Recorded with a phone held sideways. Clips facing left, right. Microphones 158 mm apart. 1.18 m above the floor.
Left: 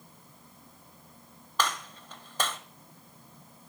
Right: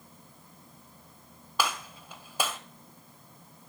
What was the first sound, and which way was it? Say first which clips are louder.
A gunshot: even; 10° right (ahead or behind).